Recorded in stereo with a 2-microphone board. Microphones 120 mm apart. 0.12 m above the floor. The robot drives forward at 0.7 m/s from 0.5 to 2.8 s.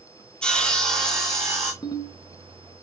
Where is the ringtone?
35° left (ahead or behind), 0.7 m; by 2.2 s 30° left (ahead or behind), 0.8 m.